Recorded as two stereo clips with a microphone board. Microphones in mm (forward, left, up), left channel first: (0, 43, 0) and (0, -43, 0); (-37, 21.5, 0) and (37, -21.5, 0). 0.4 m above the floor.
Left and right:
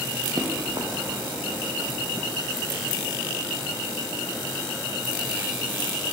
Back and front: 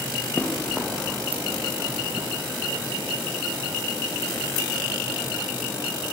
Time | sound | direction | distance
0.4 | running footsteps | 130° right | 2 m